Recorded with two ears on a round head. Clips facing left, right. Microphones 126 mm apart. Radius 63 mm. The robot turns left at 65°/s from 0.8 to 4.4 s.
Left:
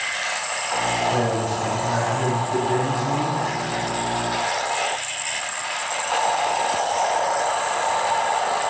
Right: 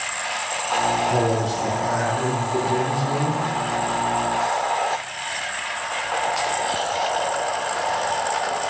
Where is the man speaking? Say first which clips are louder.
Right 1 dB; 120° right, 3.5 m; by 3.4 s 90° left, 3.5 m.